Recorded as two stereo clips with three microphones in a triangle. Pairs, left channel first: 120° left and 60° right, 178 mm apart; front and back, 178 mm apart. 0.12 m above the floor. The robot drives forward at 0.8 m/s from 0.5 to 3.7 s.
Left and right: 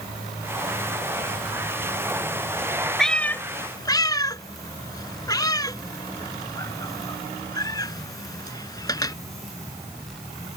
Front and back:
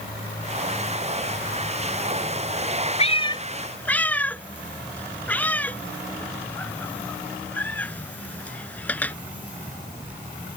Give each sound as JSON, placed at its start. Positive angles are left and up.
{"t": 3.0, "sound": "a cat meowing", "azimuth_deg": 35}